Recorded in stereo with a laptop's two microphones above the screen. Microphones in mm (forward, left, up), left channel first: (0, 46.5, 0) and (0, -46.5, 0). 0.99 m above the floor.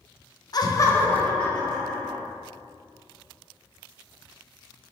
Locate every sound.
0.5 s laughter: 45° left (ahead or behind), 0.7 m; by 2.2 s centre (ahead or behind), 2.5 m